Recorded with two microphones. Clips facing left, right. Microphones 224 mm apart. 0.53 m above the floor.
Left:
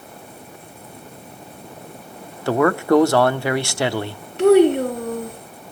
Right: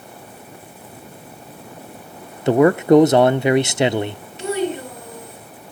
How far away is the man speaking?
About 0.6 m.